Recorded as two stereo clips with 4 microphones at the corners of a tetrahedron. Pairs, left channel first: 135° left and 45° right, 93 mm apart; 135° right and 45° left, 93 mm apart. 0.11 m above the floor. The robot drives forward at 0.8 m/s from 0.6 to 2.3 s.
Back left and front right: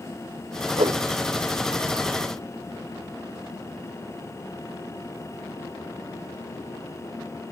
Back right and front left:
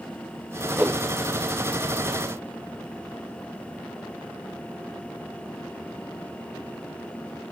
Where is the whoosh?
30° right, 1.3 m; by 1.0 s 35° right, 1.1 m.